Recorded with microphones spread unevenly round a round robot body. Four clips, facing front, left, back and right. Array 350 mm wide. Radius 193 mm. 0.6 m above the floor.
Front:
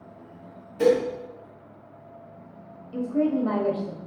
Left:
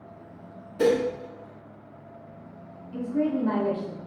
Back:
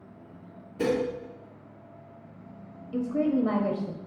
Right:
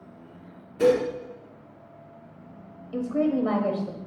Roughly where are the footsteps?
I don't hear footsteps.